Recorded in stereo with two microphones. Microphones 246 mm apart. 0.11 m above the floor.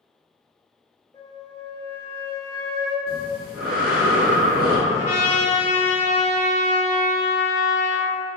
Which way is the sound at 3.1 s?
40° right (ahead or behind).